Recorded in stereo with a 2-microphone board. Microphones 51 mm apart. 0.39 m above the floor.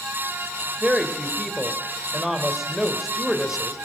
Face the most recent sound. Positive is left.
turn(degrees=-5)  # may be behind; listen again after turning